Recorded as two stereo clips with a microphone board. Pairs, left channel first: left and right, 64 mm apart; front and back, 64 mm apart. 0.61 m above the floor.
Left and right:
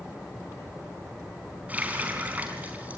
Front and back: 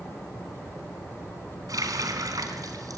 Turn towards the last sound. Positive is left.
turn(degrees=-155)